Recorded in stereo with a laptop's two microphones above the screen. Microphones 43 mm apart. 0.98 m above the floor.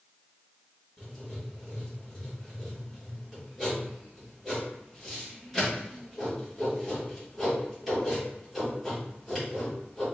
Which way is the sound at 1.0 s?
5° right (ahead or behind).